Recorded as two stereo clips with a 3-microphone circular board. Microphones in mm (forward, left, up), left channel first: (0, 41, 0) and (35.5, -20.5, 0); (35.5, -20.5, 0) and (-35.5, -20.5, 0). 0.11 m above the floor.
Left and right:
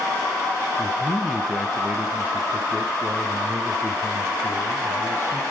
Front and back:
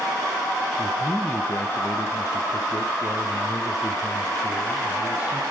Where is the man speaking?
55° left, 1.2 m; by 5.4 s 20° right, 2.5 m.